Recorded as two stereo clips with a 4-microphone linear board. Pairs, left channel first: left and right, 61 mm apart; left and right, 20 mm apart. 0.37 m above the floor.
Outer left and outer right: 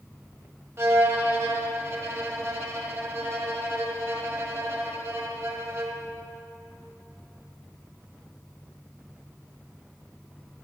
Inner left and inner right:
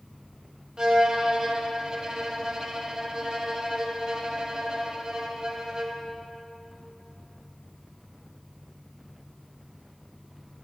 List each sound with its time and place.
0.8 s a violin: 45° right (ahead or behind), 1.3 m